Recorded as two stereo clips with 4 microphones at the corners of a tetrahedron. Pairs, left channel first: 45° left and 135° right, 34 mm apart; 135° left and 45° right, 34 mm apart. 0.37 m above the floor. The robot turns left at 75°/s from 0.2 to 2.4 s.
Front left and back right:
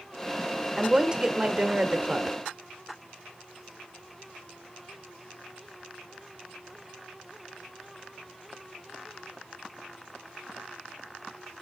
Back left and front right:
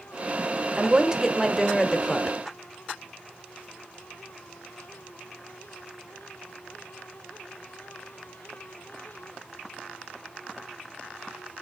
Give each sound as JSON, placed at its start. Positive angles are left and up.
{"t": 0.8, "sound": "a woman speaking", "azimuth_deg": -70, "distance_m": 1.1}